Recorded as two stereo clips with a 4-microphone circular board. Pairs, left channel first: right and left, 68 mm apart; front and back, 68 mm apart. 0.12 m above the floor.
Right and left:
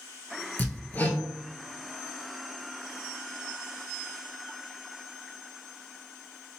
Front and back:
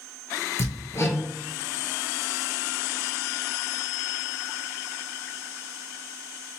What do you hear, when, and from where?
0.6 s hammering: 35° right, 1.1 m